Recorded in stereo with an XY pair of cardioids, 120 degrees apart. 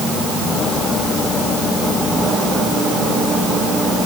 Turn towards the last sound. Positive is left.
No sound to turn to.